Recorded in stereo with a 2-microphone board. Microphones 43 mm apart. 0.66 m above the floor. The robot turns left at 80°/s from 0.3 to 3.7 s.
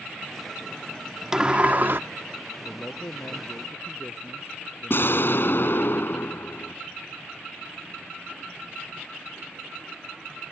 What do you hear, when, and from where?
1.3 s a sliding door: 15° right; by 2.0 s 70° right
2.6 s a man speaking: 150° left; by 5.9 s 65° left
4.9 s an explosion: 55° left (ahead or behind)